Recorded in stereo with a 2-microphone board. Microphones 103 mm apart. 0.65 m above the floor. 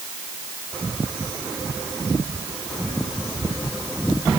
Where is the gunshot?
I don't hear a gunshot.